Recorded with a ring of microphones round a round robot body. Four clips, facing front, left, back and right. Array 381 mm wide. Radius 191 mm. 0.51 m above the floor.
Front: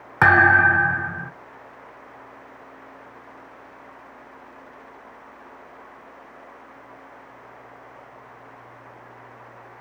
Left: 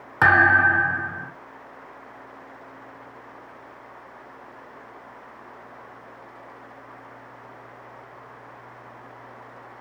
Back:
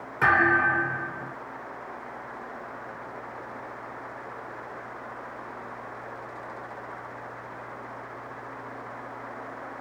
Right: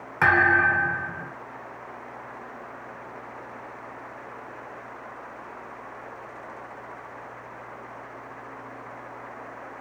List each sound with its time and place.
0.2 s a thud: 15° left, 0.6 m